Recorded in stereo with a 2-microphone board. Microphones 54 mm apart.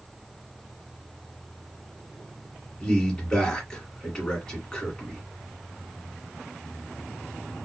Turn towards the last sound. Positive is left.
turn(degrees=15)  # may be behind; listen again after turning